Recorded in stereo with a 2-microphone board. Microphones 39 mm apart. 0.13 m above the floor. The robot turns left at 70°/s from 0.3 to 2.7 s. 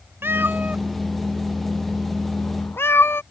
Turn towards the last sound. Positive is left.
turn(degrees=80)